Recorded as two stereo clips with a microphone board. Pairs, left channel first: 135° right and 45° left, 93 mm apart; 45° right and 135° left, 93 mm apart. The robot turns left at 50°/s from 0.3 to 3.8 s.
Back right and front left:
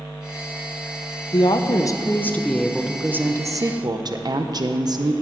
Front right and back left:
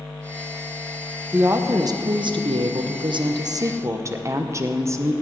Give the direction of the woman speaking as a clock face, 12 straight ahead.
5 o'clock.